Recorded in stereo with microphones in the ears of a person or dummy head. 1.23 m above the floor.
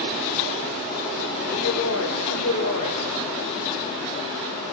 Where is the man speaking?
85° left, 6 m.